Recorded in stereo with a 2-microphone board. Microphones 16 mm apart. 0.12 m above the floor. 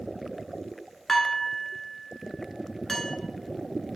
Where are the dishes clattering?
20° left (ahead or behind), 0.8 m.